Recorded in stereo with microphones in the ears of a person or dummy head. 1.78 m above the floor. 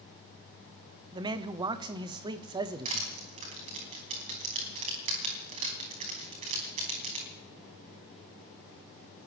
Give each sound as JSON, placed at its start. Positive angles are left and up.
{"t": 1.1, "sound": "a man speaking", "side_deg": -25, "distance_m": 0.8}
{"t": 2.9, "sound": "crushing", "side_deg": -35, "distance_m": 3.5}